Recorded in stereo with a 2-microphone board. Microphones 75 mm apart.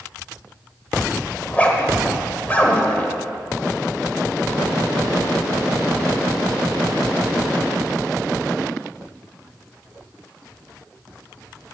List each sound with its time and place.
1.4 s a zipper: 20° left (ahead or behind), 1.1 m